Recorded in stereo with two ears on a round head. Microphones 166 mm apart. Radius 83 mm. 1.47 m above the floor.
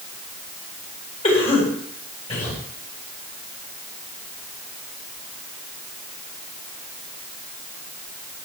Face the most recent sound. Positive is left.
turn(degrees=35)  # may be behind; listen again after turning